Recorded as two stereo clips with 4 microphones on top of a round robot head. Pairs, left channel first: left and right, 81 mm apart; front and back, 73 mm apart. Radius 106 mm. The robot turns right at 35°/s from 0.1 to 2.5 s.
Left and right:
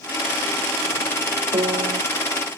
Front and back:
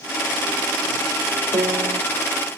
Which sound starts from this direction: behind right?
A piano, at 1.5 s.